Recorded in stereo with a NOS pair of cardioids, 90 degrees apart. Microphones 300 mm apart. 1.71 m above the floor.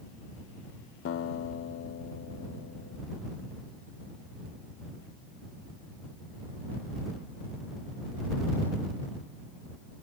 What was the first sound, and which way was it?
A guitar, 45° left.